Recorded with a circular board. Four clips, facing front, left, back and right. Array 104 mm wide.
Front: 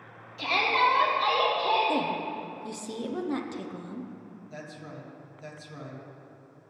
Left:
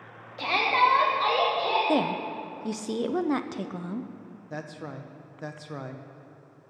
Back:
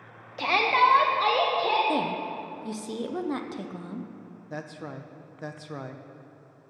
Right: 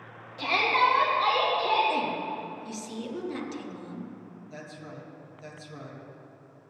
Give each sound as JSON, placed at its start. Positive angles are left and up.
{"t": 0.4, "sound": "a shout", "azimuth_deg": 165, "distance_m": 1.7}
{"t": 1.9, "sound": "a woman speaking", "azimuth_deg": 100, "distance_m": 0.6}
{"t": 4.5, "sound": "a man speaking", "azimuth_deg": 140, "distance_m": 0.9}